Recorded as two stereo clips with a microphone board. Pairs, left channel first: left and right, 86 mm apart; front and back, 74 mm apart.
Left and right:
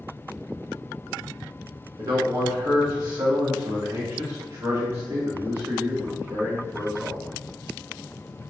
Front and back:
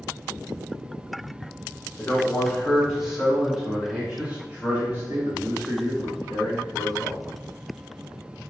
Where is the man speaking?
65° right, 1.7 m; by 7.2 s 155° right, 2.5 m.